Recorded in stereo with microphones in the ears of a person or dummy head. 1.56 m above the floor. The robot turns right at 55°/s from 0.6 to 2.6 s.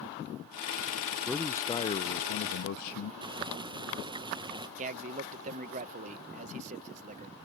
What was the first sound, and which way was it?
A man speaking, straight ahead.